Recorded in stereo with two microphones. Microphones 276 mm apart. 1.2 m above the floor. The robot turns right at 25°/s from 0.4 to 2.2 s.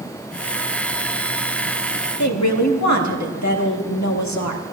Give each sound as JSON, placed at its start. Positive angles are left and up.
{"t": 2.2, "sound": "a woman speaking", "side_deg": 80, "distance_m": 1.6}